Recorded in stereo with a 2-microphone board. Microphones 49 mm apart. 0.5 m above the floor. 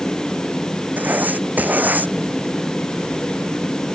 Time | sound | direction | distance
1.0 | writing | 35° right (ahead or behind) | ?